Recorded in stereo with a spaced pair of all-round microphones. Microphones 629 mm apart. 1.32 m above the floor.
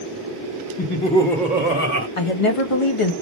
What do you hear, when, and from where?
0.8 s laughter: 25° left (ahead or behind), 0.9 m; by 2.1 s 20° right (ahead or behind), 1.2 m
2.2 s a woman speaking: 55° left (ahead or behind), 1.0 m